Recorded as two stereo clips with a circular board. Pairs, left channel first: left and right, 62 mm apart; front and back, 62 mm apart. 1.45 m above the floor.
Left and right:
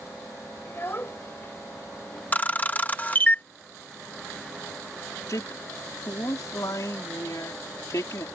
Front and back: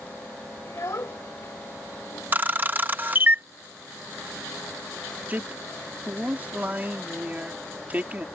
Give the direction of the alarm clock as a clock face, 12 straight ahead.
No alarm clock in this recording.